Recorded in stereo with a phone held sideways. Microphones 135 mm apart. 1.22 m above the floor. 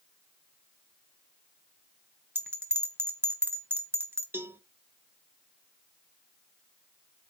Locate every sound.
2.4 s a bell: 15° right (ahead or behind), 1.3 m
4.3 s a cowbell: 15° right (ahead or behind), 0.6 m